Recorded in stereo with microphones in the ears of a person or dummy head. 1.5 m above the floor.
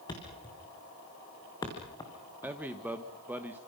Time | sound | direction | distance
0.1 | a thud | 20° left (ahead or behind) | 4.5 m
2.4 | a man speaking | 5° right (ahead or behind) | 1.2 m